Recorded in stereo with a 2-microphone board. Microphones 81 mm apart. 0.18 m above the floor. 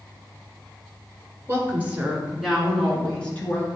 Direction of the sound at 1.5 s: 30° right (ahead or behind).